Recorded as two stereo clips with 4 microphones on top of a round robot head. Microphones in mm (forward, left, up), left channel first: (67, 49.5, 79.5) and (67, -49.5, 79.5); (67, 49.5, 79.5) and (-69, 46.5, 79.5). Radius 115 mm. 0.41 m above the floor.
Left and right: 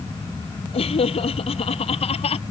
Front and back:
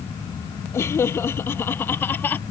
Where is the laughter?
75° left; by 2.4 s 80° left.